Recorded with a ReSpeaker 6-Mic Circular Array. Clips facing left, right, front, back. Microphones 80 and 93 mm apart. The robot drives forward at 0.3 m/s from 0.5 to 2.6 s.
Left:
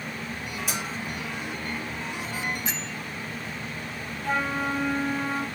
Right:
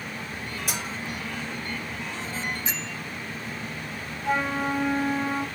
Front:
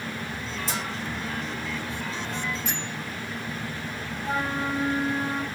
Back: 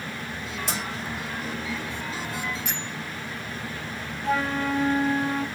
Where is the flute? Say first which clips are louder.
Right 1 dB, back 3 dB; 165° right, 3.5 m.